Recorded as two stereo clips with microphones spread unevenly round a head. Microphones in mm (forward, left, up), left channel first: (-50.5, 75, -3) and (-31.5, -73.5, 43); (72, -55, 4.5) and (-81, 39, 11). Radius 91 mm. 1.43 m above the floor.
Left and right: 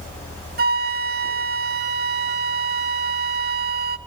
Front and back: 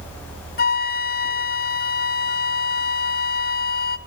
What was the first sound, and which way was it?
A flute, 70° right.